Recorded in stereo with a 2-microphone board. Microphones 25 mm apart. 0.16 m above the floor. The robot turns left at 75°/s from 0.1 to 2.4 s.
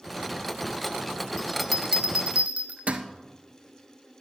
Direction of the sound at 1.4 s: 15° left (ahead or behind).